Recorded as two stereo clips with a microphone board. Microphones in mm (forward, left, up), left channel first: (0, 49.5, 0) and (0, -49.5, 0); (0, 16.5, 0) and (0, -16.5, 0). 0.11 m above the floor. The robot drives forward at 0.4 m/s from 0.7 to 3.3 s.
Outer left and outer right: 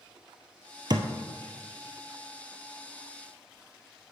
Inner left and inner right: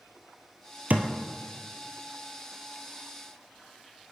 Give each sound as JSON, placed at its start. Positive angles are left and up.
{"t": 0.9, "sound": "a thud", "side_deg": -50, "distance_m": 0.7}